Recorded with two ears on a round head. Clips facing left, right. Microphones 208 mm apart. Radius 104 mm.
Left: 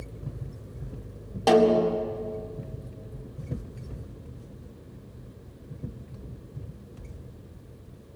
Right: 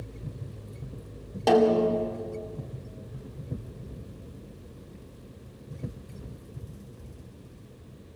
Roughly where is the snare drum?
Centre.